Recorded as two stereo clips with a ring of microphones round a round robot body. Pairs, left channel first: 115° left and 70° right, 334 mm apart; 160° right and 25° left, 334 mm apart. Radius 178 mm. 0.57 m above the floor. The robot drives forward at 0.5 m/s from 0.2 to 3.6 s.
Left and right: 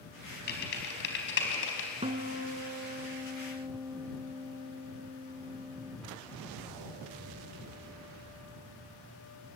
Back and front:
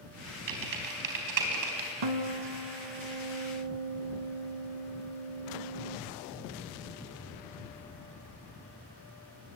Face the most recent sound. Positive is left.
turn(degrees=10)